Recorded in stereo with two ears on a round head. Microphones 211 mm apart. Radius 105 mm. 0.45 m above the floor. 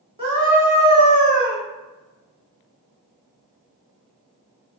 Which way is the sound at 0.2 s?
25° right (ahead or behind).